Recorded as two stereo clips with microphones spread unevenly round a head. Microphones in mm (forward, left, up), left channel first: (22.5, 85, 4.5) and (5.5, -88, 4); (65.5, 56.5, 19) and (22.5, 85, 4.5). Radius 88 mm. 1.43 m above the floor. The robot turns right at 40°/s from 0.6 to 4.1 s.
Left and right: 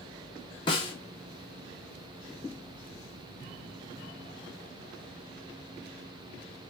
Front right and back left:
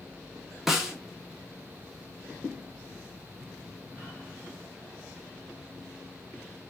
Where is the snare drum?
40° left, 0.9 m; by 0.9 s 50° left, 0.9 m.